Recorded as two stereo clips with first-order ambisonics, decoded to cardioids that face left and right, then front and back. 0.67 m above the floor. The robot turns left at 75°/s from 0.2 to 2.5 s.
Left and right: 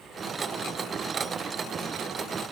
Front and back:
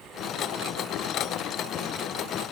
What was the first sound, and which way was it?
Only background noise.